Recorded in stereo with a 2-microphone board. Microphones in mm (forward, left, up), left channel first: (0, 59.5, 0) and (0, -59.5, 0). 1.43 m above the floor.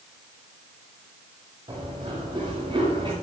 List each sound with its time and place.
1.7 s running footsteps: 45° right (ahead or behind), 7 m; by 3.1 s 50° right (ahead or behind), 6.5 m